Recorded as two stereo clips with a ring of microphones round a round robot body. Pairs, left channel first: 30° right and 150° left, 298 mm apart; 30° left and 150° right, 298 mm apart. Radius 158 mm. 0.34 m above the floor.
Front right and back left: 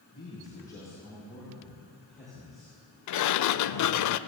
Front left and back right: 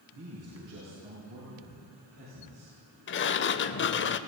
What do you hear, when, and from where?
0.1 s a man speaking: 105° right, 7 m; by 4.0 s 125° right, 11 m
3.1 s a sliding door: 15° right, 0.6 m